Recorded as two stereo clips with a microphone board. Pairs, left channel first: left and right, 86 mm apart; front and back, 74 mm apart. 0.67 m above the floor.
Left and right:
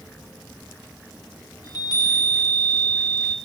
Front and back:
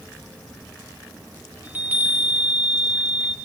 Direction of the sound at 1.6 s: 115° left.